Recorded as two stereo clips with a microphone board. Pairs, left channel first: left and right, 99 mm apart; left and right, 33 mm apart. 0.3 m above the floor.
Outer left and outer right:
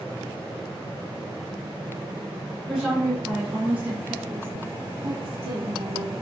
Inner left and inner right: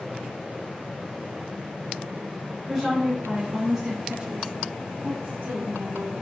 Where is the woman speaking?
Centre (ahead or behind), 2.5 m; by 6.1 s 55° right (ahead or behind), 2 m.